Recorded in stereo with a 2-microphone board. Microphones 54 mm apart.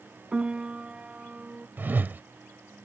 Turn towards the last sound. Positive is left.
turn(degrees=-40)  # may be behind; listen again after turning